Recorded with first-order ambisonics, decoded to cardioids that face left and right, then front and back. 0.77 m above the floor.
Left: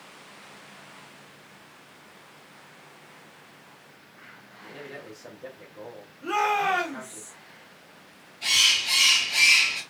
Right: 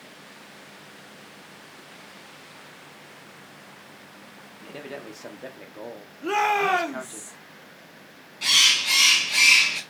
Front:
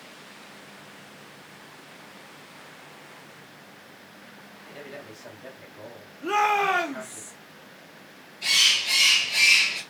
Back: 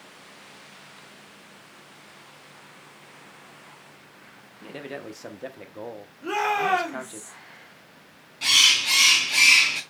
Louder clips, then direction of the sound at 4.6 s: Right 3 dB, back 5 dB; 150° right.